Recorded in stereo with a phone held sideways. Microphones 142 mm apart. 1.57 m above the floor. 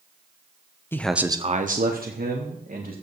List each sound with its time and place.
0.9 s a man speaking: 15° left (ahead or behind), 0.9 m; by 2.9 s 80° right, 2.5 m